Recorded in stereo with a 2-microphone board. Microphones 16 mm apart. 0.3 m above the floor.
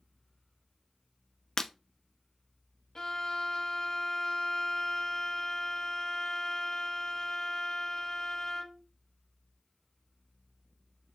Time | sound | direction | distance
1.6 | breaking glass | 35° left (ahead or behind) | 0.5 m
3.0 | a violin | 45° left (ahead or behind) | 0.6 m